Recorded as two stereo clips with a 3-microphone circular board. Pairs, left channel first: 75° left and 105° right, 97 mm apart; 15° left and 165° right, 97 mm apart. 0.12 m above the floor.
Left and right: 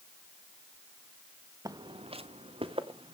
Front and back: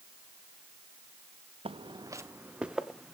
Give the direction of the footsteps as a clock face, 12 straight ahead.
5 o'clock.